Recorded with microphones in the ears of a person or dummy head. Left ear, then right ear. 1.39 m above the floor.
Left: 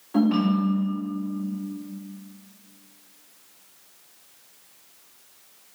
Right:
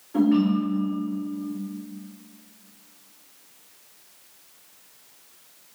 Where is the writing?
No writing in this recording.